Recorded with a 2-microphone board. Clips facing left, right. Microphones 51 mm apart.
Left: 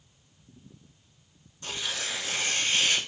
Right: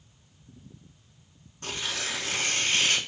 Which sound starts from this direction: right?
Tearing paper, at 1.6 s.